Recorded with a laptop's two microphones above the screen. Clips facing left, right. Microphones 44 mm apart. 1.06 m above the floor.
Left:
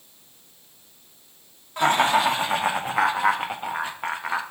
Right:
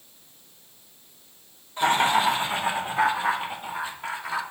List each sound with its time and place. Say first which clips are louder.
1.8 s laughter: left 2 dB; 80° left, 2 m; by 4.4 s 35° left (ahead or behind), 1.1 m